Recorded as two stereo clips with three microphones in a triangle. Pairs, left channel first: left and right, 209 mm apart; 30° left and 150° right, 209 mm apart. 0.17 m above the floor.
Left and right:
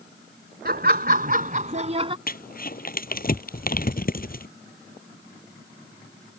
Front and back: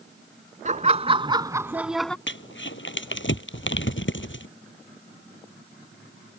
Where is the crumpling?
50° left.